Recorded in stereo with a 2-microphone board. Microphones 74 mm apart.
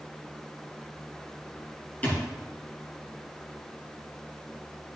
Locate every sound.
2.0 s a thud: 25° left (ahead or behind), 4 m